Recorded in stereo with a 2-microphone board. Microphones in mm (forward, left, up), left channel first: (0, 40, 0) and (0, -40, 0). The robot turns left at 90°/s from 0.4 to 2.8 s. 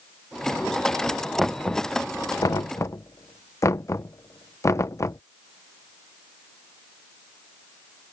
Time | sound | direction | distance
1.4 | knocking | 5° right (ahead or behind) | ?